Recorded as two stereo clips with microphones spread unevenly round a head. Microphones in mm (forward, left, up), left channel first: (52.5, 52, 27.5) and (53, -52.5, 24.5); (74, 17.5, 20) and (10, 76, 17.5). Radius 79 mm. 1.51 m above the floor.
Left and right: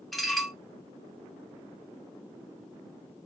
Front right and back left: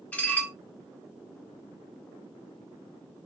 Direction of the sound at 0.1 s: 5° left.